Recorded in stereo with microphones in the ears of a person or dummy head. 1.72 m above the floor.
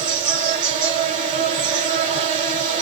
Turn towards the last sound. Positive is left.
turn(degrees=-35)  # may be behind; listen again after turning